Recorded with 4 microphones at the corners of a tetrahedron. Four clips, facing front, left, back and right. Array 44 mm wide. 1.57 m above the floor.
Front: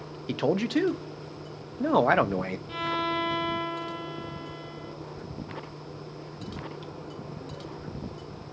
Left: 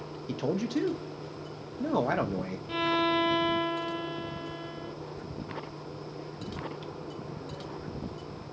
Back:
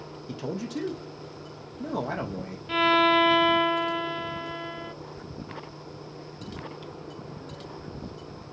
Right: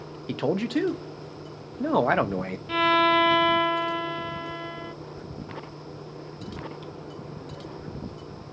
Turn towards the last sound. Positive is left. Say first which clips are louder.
# right 7 dB, back 10 dB
turn(degrees=-140)